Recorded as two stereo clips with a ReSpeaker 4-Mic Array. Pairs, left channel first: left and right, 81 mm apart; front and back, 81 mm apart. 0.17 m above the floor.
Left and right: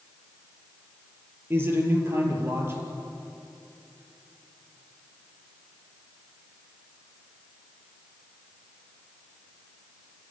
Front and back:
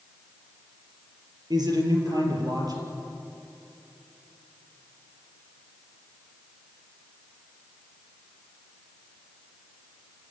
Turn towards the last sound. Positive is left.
turn(degrees=-150)